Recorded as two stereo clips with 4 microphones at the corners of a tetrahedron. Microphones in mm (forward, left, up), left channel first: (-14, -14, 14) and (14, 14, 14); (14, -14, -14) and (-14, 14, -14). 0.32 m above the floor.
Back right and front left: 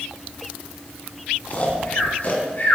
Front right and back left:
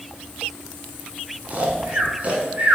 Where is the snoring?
175° right, 1.7 m.